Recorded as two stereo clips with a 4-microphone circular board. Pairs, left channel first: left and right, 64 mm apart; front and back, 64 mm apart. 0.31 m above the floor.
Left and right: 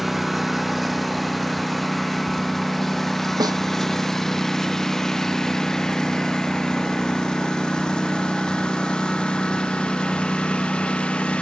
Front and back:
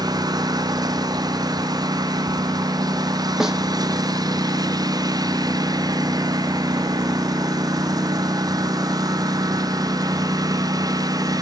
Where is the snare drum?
95° right.